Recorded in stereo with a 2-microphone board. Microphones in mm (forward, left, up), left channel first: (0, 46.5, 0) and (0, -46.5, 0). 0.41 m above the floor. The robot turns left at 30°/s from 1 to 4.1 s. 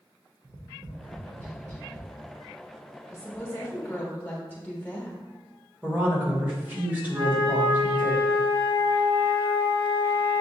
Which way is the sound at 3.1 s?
30° left (ahead or behind).